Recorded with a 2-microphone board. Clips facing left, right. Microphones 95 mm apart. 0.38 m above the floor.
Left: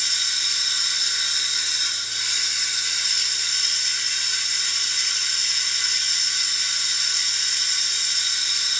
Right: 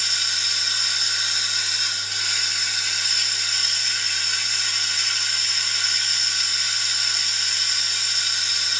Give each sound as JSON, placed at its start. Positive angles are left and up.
{"t": 0.0, "sound": "running water", "side_deg": -65, "distance_m": 1.0}